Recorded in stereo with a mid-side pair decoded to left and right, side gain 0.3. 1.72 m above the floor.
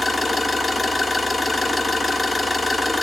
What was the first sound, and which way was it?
An engine running, 25° left.